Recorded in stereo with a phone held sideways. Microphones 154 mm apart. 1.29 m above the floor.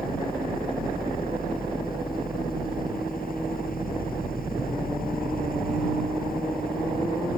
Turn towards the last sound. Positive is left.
turn(degrees=70)  # may be behind; listen again after turning